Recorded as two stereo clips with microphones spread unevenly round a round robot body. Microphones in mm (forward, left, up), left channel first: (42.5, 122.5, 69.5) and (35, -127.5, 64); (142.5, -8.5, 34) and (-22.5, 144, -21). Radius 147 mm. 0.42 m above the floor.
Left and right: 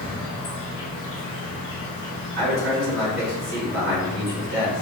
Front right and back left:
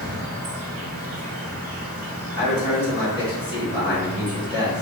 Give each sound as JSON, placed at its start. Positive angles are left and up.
{"t": 0.0, "sound": "an insect", "azimuth_deg": 130, "distance_m": 0.9}
{"t": 2.4, "sound": "a man speaking", "azimuth_deg": -135, "distance_m": 1.6}